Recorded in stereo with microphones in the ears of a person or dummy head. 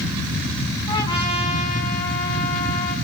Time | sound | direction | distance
0.9 | a trumpet | 20° left (ahead or behind) | 5.5 m